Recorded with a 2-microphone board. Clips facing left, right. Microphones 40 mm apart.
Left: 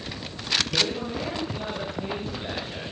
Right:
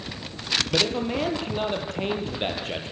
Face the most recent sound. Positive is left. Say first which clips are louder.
# right 3 dB
turn(degrees=-60)  # may be behind; listen again after turning